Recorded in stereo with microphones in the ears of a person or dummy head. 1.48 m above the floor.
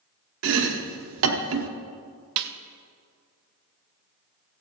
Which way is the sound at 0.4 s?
75° right (ahead or behind).